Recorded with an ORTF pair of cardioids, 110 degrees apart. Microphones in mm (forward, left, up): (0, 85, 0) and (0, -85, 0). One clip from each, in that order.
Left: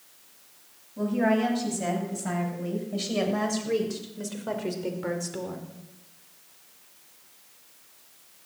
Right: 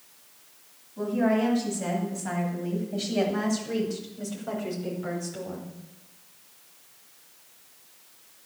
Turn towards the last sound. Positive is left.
turn(degrees=50)